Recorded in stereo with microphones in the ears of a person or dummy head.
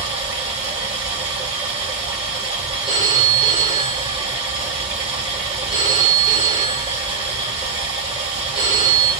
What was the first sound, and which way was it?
Running water, 15° right (ahead or behind).